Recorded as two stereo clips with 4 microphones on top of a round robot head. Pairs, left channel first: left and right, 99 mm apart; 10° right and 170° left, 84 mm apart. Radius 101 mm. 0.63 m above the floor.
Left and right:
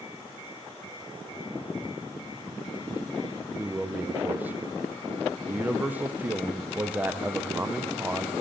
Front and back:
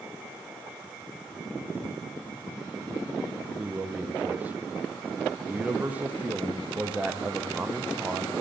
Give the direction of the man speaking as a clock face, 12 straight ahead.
5 o'clock.